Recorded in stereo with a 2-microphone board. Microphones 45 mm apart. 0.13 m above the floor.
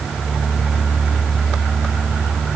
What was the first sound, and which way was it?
Only background noise.